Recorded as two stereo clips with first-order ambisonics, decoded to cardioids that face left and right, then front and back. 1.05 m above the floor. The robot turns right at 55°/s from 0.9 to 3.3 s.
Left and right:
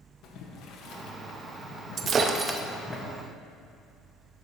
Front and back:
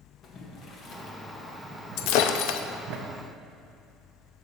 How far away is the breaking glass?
About 0.5 m.